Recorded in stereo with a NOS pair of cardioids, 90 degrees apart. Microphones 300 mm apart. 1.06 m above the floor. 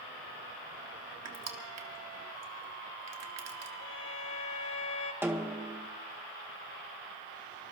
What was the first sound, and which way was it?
Crushing, 55° right.